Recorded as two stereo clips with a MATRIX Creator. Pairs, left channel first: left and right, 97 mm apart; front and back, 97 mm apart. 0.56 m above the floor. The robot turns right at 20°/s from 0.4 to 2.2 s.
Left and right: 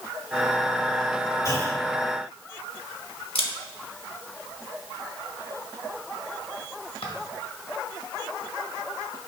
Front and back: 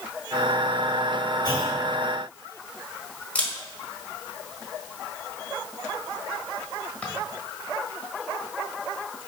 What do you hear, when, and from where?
1.4 s a clunk: 40° left, 3 m; by 1.8 s 50° left, 3 m
3.4 s a camera shutter: 75° left, 1.5 m